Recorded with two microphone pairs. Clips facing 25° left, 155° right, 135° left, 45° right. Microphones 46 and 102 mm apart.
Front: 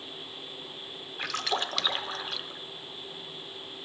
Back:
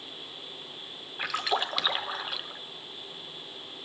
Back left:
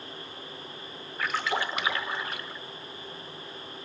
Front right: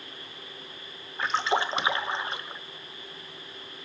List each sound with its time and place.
1.2 s a splash: 85° right, 0.6 m